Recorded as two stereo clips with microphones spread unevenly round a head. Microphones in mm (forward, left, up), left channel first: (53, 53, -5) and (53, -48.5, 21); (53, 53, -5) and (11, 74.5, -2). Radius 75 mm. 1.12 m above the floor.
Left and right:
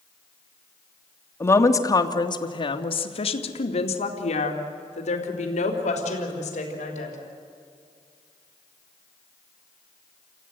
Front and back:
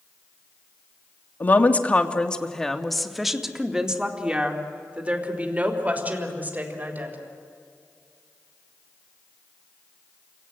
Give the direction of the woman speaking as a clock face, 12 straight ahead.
11 o'clock.